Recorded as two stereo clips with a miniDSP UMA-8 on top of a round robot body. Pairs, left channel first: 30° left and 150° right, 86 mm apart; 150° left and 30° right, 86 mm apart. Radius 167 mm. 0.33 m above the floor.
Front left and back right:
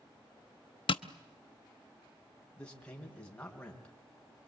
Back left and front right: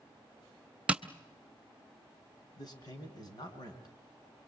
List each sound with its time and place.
0.9 s tapping: 45° left, 0.8 m
2.6 s a man speaking: 110° left, 4.5 m